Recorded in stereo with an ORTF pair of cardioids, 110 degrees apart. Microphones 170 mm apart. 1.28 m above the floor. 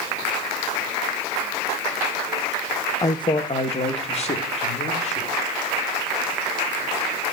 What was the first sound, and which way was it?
A man speaking, 20° left.